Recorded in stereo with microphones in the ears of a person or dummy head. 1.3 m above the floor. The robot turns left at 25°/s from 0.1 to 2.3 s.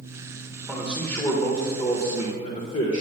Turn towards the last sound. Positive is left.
turn(degrees=140)